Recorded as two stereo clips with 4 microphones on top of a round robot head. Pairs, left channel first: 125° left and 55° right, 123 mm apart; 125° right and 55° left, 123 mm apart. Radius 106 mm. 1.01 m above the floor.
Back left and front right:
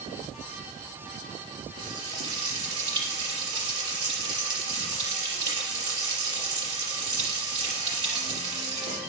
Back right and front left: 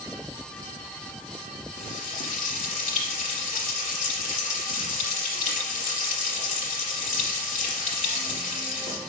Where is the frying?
110° right, 4 m.